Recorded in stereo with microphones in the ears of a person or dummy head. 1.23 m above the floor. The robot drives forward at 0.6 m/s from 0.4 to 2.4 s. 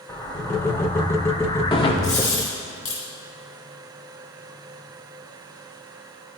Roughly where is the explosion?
Centre.